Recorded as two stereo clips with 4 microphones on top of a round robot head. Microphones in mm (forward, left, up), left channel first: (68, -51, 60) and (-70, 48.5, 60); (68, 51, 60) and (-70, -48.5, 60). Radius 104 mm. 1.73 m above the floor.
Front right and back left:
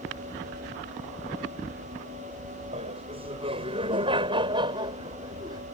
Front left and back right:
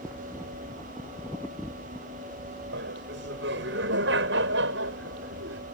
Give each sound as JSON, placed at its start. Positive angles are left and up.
{"t": 2.7, "sound": "laughter", "azimuth_deg": -160}